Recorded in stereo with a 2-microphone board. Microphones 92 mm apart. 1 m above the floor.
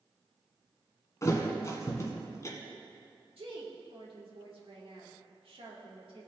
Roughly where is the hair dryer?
I don't hear a hair dryer.